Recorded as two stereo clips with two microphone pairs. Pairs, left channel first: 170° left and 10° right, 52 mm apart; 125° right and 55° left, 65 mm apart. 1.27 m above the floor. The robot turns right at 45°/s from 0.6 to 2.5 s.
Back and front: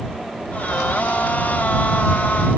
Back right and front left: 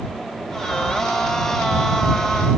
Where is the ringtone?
No ringtone in this recording.